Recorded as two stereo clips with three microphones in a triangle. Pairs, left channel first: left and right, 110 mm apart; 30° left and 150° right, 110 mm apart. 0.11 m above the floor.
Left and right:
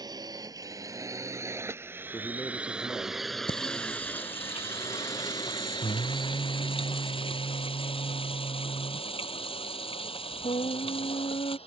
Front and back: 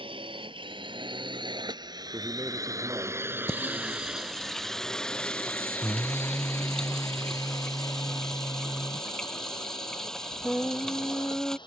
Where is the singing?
115° left.